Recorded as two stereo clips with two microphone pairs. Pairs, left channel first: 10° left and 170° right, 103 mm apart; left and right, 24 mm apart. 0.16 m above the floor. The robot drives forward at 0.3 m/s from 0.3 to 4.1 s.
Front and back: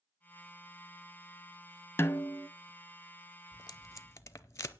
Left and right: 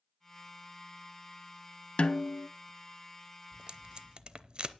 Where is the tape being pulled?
40° right, 0.8 m; by 4.8 s 50° right, 0.6 m.